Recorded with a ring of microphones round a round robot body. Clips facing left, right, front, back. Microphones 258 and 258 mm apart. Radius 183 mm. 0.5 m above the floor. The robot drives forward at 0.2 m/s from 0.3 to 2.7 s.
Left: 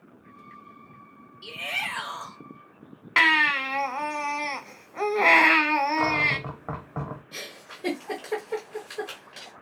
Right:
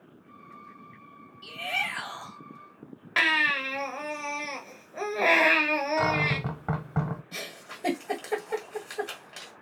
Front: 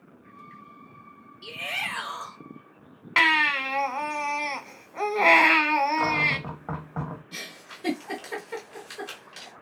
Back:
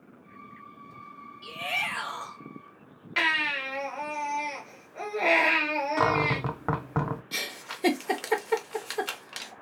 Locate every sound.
1.4 s a shout: 55° left, 2.5 m; by 2.4 s 60° left, 2.5 m
3.2 s a baby crying: 25° left, 1.0 m
6.0 s a cupboard door: 155° right, 0.6 m
7.3 s a giggle: 170° left, 0.9 m